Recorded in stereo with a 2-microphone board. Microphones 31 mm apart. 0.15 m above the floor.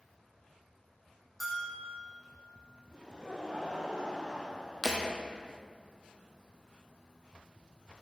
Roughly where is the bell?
Centre.